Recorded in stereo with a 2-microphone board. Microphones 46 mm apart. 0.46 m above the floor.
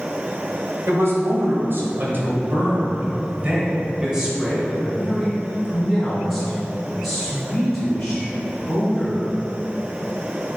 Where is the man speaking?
65° right (ahead or behind), 1.9 m; by 9.2 s 15° left (ahead or behind), 4.5 m.